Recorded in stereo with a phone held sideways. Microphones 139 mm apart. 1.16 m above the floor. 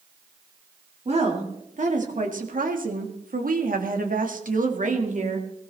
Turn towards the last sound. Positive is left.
turn(degrees=-55)  # may be behind; listen again after turning